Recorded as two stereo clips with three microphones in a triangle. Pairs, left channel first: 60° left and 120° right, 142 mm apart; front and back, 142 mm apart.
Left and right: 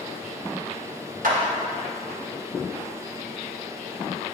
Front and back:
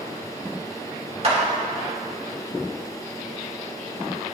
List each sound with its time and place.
1.2 s a clap: 135° right, 1.4 m